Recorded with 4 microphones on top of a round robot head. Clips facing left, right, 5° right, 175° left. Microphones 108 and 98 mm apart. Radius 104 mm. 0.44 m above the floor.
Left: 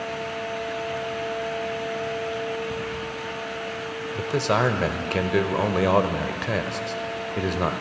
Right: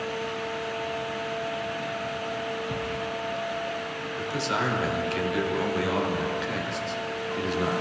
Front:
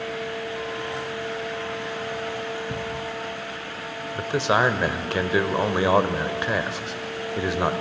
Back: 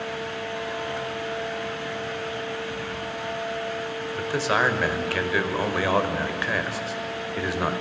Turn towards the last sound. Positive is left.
turn(degrees=60)